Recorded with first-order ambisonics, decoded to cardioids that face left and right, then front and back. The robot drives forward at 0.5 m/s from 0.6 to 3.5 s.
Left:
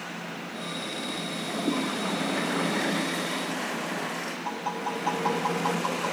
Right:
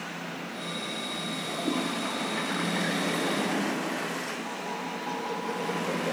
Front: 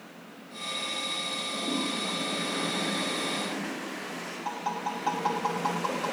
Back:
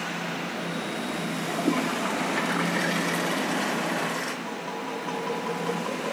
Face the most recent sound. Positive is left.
turn(degrees=30)